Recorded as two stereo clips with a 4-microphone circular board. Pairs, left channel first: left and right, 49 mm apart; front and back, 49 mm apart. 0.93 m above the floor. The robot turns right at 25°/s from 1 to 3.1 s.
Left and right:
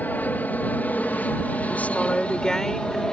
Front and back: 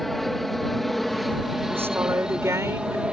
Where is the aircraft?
90° left; by 3.1 s 145° left.